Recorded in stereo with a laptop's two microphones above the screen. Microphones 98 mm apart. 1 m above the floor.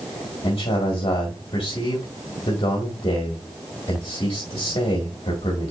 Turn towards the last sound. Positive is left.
turn(degrees=60)  # may be behind; listen again after turning